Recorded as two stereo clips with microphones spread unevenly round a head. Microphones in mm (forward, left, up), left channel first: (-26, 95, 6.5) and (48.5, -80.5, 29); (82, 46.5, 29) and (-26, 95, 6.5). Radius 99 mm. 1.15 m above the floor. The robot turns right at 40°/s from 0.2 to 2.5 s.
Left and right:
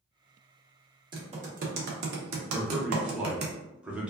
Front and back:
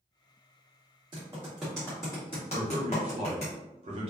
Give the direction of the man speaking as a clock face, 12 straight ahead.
5 o'clock.